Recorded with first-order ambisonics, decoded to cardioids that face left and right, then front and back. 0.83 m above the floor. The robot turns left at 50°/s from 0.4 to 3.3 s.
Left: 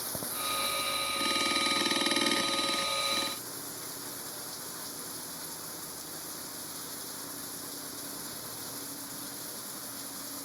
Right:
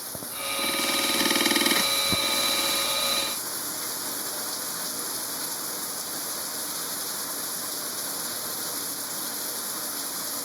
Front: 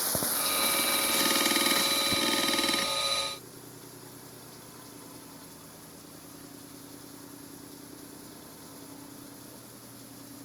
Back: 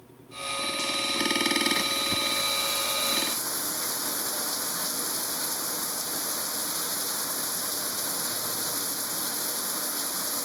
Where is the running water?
5° right; by 10.4 s 150° right.